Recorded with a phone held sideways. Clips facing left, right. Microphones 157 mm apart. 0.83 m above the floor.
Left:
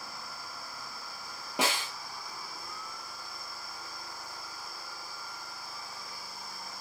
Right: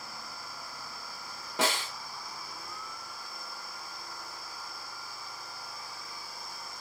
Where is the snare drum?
15° left (ahead or behind), 1.1 m.